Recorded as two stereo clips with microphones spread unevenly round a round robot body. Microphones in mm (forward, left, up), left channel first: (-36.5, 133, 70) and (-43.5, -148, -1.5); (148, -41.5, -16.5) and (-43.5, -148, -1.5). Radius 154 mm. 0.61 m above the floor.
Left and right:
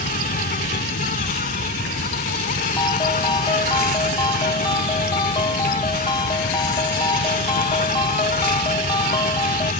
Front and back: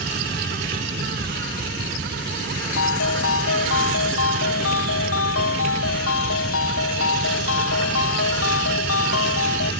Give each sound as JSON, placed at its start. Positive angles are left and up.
{"t": 0.0, "sound": "an insect", "azimuth_deg": 150}
{"t": 2.8, "sound": "a ringtone", "azimuth_deg": 10}